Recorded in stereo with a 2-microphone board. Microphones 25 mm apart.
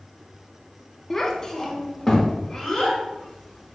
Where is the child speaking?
20° left (ahead or behind), 0.5 m.